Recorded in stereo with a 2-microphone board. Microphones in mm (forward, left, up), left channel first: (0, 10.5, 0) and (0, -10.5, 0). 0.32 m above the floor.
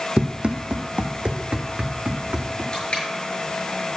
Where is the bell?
No bell in this recording.